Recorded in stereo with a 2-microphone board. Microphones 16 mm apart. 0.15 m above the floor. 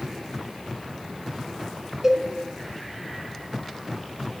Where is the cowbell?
25° right (ahead or behind), 0.7 m.